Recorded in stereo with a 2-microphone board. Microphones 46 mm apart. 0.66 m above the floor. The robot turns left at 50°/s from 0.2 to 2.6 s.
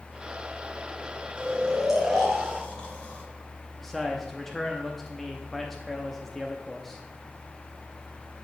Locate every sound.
1.4 s snoring: 30° right (ahead or behind), 2 m; by 4.8 s 30° left (ahead or behind), 2 m
3.8 s a man speaking: 5° left (ahead or behind), 0.6 m